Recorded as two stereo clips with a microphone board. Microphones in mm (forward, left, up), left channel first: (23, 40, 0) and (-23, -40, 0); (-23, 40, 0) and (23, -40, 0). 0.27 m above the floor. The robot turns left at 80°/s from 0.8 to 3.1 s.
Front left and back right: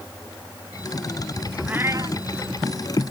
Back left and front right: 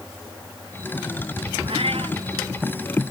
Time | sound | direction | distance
1.7 | a cat meowing | 40° right | ?